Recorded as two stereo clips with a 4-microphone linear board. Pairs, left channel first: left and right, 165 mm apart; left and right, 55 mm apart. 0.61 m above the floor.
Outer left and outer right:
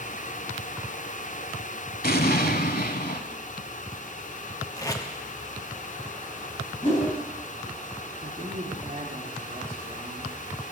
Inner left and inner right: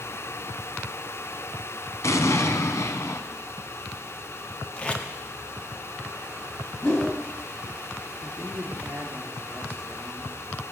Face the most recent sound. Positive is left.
turn(degrees=-50)  # may be behind; listen again after turning